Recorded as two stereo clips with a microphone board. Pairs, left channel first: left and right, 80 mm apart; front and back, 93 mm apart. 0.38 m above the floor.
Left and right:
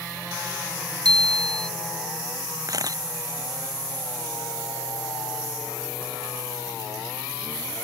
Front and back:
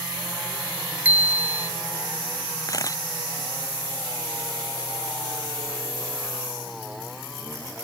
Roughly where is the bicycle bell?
Right.